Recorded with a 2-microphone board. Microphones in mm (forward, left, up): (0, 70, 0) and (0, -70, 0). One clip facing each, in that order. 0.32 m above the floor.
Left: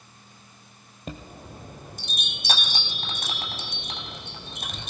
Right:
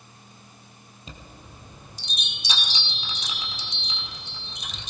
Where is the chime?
55° left (ahead or behind), 1.5 m.